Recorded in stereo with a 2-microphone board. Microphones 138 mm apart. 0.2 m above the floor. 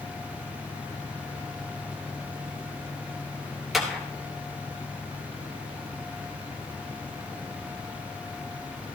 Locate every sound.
3.7 s a clap: centre (ahead or behind), 2.5 m